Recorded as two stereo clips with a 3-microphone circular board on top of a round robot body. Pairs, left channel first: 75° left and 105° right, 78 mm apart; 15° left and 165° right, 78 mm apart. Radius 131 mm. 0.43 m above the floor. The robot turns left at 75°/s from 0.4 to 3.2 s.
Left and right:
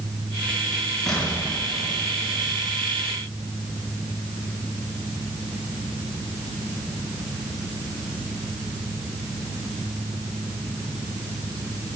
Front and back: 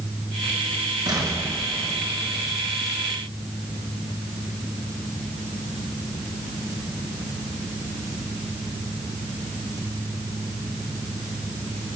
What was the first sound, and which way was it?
An explosion, 160° left.